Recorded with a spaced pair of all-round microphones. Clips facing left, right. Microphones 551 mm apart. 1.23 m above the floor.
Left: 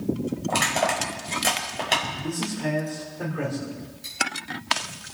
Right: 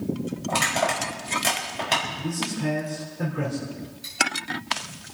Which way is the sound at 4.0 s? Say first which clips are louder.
Right 1 dB; 30° right (ahead or behind).